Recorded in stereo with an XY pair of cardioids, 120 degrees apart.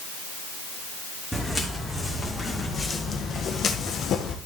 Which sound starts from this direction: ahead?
Footsteps, at 1.3 s.